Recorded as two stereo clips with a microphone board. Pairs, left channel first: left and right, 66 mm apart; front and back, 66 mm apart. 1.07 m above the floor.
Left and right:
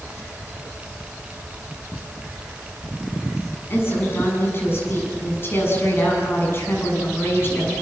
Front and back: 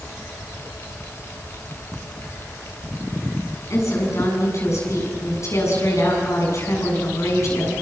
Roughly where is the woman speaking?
Ahead left.